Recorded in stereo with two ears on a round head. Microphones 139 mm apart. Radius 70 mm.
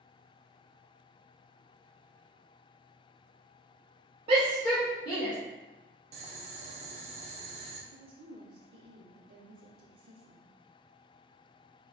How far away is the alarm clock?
No alarm clock in this recording.